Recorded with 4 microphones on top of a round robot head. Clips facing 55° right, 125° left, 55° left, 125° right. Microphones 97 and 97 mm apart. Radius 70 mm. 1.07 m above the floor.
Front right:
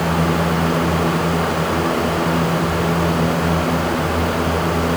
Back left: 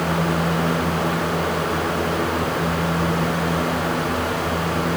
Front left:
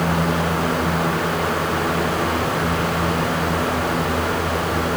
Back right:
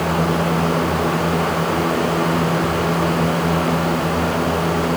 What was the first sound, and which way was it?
Only background noise.